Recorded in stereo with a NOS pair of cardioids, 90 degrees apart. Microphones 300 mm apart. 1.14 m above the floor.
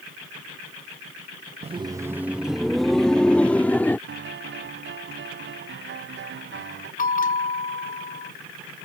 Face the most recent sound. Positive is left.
turn(degrees=30)